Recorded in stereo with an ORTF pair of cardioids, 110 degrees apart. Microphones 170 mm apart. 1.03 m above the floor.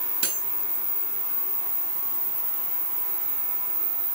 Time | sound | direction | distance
0.2 | cutlery clinking | 55° right | 7 m